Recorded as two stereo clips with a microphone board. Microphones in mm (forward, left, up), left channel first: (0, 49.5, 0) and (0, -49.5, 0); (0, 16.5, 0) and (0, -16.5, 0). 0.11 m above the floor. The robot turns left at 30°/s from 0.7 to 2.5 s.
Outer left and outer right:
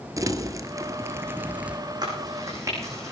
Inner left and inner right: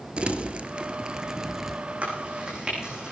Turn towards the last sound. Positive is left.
turn(degrees=-30)  # may be behind; listen again after turning